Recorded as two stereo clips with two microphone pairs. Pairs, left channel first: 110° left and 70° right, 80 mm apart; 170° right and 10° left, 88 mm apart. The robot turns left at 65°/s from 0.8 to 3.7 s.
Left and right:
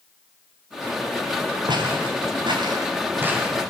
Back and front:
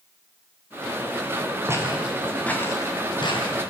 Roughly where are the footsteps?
Ahead right.